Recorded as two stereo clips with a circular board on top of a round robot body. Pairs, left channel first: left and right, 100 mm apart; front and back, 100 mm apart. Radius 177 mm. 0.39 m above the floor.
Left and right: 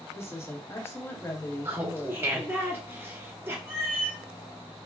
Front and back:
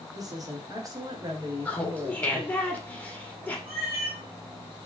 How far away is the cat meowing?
About 0.8 m.